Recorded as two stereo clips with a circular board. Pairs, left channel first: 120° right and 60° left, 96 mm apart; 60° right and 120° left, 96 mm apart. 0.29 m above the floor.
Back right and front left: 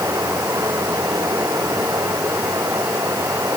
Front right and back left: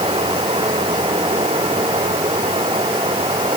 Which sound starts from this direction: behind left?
Running water, at 0.0 s.